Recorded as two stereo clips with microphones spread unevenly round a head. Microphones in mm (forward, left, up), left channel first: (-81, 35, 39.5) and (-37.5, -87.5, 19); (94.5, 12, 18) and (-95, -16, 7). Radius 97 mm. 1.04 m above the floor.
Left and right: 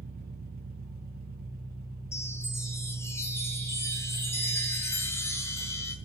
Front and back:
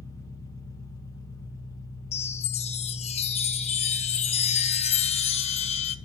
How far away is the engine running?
About 3 m.